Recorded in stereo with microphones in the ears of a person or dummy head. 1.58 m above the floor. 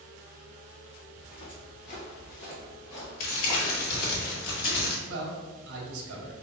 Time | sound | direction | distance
1.2 | footsteps | 25° left (ahead or behind) | 1.7 m
3.2 | crumpling | 55° left (ahead or behind) | 1.6 m
5.1 | a man speaking | 65° right (ahead or behind) | 1.3 m